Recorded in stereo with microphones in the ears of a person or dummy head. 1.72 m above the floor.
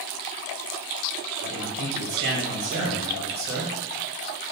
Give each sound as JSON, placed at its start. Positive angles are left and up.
{"t": 1.4, "sound": "a man speaking", "side_deg": -60, "distance_m": 1.2}